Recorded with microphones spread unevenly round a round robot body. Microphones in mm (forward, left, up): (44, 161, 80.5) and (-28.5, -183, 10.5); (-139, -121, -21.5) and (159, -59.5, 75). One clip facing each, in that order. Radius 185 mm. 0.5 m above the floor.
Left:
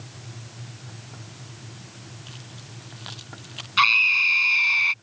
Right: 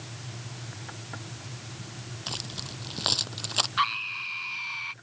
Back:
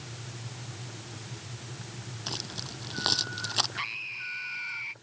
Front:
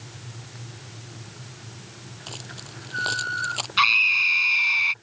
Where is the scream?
45° left.